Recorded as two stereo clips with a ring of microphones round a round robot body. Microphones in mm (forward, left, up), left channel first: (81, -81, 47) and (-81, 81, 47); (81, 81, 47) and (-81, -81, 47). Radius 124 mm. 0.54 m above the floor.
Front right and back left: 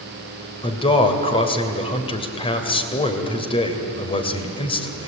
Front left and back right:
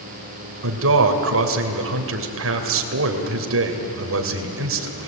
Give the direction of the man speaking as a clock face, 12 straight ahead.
4 o'clock.